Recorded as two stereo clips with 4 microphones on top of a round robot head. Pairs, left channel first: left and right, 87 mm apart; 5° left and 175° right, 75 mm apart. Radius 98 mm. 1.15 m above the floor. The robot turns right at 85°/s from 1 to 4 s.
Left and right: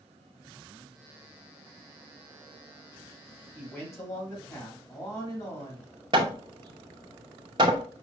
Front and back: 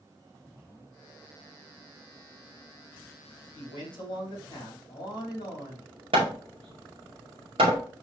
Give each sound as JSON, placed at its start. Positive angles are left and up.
{"t": 3.5, "sound": "a man speaking", "azimuth_deg": -5, "distance_m": 2.5}
{"t": 6.1, "sound": "hammering", "azimuth_deg": -145, "distance_m": 0.6}